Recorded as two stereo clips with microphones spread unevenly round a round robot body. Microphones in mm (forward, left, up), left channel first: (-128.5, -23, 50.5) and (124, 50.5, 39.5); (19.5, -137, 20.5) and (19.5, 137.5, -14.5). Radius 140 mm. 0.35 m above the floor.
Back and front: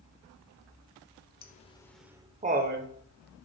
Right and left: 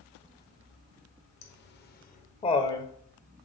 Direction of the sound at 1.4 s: 130° right.